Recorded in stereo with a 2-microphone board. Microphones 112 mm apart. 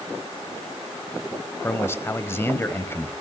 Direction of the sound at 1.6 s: 20° left (ahead or behind).